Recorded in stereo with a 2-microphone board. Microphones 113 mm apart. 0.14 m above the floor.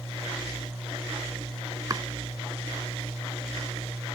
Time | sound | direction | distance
1.9 | chopping | 35° right (ahead or behind) | ?